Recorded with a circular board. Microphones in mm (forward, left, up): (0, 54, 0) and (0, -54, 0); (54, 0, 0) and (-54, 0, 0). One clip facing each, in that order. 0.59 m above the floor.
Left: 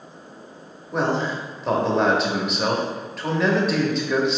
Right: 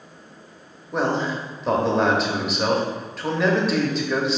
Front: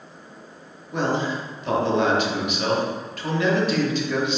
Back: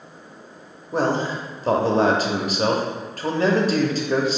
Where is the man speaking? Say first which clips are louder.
Even, back 2 dB; straight behind, 0.7 m.